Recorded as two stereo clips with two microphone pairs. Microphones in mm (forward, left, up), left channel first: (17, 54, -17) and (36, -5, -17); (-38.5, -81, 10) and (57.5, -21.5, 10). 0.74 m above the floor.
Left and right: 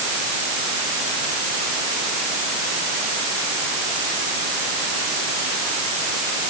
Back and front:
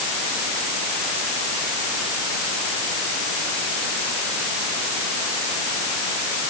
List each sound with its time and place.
Only background noise.